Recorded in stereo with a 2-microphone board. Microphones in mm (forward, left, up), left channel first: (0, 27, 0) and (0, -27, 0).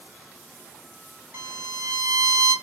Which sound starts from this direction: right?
A violin, at 1.3 s.